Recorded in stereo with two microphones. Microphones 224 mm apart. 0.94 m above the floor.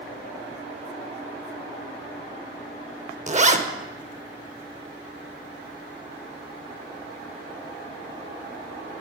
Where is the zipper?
30° right (ahead or behind), 0.7 m.